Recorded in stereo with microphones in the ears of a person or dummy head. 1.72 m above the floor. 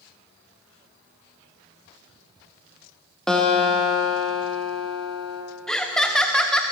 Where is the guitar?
Centre (ahead or behind), 1.3 m.